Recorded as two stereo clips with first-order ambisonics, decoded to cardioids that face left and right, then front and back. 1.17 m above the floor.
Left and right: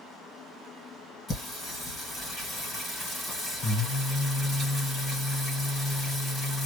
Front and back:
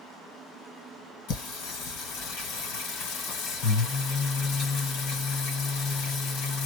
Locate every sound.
1.3 s singing: 15° left, 2 m